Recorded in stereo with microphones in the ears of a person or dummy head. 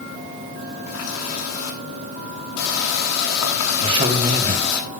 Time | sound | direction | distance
0.9 | a running tap | 90° left | 7 m
3.8 | a man speaking | 30° right (ahead or behind) | 3.5 m